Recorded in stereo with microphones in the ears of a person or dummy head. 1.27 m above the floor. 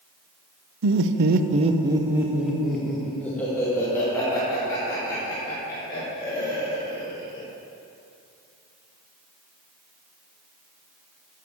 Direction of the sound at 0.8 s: 70° right (ahead or behind).